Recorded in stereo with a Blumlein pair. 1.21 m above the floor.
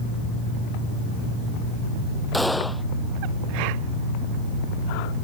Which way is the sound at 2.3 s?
Straight ahead.